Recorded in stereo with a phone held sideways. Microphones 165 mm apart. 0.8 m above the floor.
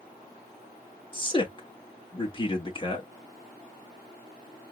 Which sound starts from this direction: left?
A man speaking, at 1.1 s.